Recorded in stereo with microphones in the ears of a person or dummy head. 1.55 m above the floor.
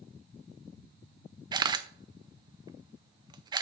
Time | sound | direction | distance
1.5 | a camera shutter | 25° right (ahead or behind) | 0.5 m